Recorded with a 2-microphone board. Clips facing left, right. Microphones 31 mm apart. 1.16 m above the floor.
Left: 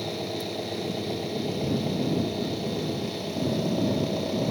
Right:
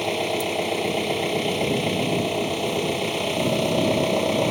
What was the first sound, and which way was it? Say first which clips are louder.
An engine running: right 7 dB; 70° right (ahead or behind).